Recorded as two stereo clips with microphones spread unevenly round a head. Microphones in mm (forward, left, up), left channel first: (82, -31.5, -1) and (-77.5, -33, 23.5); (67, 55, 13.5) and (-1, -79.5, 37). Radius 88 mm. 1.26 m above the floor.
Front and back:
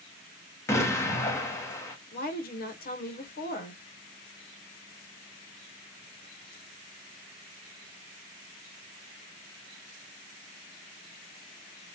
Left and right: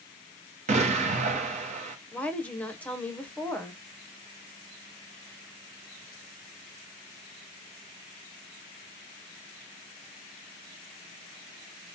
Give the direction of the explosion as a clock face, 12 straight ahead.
2 o'clock.